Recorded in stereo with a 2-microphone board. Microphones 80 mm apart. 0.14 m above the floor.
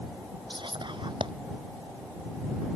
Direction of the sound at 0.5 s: 75° right (ahead or behind).